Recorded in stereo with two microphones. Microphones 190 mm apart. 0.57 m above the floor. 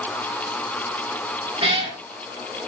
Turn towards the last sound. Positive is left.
turn(degrees=-30)  # may be behind; listen again after turning